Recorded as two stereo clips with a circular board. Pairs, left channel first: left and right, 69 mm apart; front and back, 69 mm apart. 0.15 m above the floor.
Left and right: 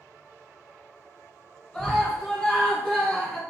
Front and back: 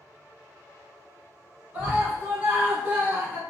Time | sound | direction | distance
1.7 | a scream | 155° left | 1.1 m